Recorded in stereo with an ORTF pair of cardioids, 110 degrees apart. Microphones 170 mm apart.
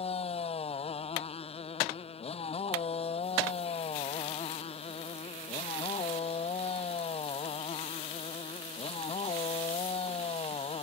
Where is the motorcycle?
35° left.